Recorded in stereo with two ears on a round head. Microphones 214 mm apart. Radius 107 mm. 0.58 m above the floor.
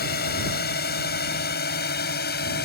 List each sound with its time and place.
0.0 s a drone: 40° left (ahead or behind)